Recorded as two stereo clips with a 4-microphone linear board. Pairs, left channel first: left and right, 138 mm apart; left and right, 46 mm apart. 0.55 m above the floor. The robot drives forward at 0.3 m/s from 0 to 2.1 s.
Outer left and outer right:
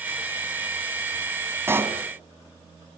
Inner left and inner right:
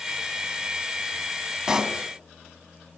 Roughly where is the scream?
I don't hear a scream.